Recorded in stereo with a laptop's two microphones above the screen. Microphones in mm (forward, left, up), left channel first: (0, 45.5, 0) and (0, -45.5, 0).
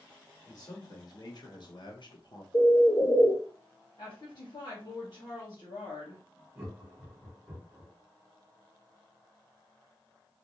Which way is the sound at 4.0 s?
55° left (ahead or behind).